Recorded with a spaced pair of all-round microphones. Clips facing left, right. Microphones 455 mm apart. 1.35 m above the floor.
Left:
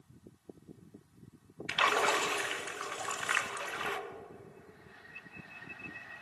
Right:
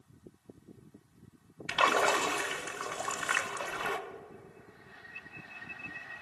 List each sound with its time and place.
1.7 s a splash: 60° right (ahead or behind), 0.7 m